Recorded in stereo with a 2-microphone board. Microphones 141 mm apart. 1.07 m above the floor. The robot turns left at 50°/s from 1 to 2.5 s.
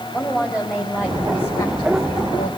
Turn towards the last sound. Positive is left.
turn(degrees=110)